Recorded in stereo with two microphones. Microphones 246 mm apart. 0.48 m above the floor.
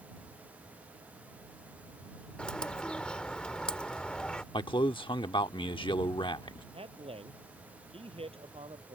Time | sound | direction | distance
2.4 | a bird | 5° left (ahead or behind) | ?
4.5 | a man speaking | 20° left (ahead or behind) | ?
6.7 | a man speaking | 25° right (ahead or behind) | ?